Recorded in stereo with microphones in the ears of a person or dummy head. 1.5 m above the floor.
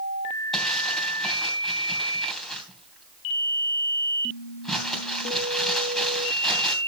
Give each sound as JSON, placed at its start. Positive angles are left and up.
{"t": 0.5, "sound": "crumpling", "side_deg": 5, "distance_m": 3.0}